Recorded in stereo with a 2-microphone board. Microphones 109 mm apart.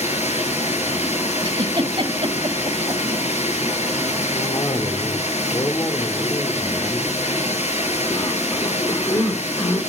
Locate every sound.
0.0 s running water: 80° left, 7 m
1.4 s a giggle: 50° right (ahead or behind), 2.5 m
4.3 s a cough: 35° left (ahead or behind), 1.8 m